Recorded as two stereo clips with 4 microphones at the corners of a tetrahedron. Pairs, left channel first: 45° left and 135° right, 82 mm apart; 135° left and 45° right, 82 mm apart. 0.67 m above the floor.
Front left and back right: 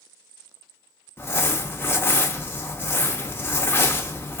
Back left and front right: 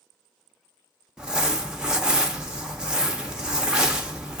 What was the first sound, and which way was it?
Crumpling, 20° left.